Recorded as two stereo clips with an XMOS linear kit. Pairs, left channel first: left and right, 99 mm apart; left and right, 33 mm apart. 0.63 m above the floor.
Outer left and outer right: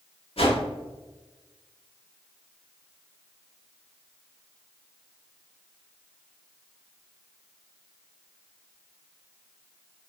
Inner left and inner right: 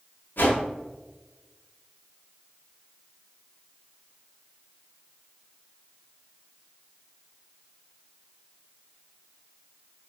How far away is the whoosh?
About 0.9 m.